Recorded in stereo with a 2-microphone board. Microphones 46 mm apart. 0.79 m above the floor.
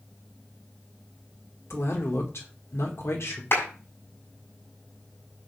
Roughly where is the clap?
Left.